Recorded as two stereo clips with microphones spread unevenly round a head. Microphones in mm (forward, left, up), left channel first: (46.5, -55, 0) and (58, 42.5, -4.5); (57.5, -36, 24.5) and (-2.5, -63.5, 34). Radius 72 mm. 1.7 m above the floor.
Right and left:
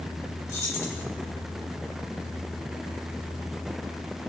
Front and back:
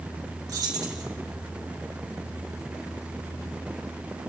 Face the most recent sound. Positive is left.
turn(degrees=-165)